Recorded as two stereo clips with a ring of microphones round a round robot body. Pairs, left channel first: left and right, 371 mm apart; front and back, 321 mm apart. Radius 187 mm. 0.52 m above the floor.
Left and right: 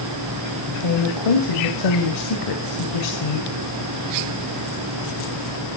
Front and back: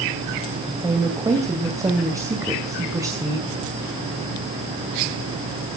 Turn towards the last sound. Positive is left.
turn(degrees=100)